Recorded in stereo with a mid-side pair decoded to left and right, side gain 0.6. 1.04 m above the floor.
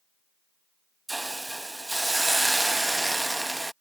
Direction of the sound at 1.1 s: 10° right.